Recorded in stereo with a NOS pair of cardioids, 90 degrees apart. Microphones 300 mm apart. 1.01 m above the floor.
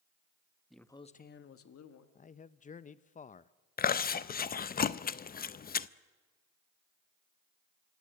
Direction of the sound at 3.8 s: 30° left.